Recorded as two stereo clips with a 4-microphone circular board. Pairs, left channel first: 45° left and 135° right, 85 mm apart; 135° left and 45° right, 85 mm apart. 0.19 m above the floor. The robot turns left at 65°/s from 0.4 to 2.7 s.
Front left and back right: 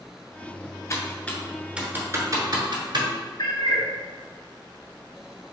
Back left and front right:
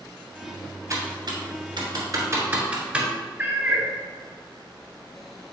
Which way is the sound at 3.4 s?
20° left.